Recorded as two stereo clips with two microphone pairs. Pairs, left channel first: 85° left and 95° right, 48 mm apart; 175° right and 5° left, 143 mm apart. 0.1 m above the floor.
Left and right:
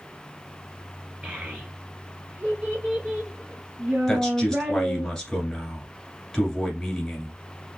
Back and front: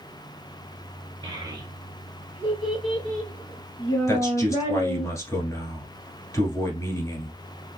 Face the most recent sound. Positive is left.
turn(degrees=150)